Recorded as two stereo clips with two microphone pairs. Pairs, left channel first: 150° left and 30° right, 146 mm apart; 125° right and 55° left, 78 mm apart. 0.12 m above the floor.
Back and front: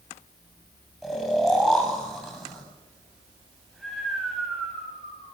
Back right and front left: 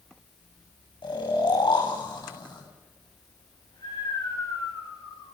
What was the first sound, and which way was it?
Snoring, 120° right.